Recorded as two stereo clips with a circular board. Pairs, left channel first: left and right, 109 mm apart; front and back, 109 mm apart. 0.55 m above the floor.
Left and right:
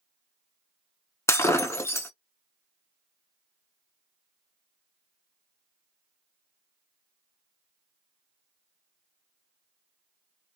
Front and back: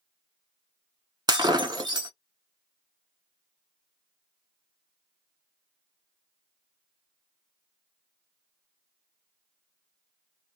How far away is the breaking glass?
About 0.6 m.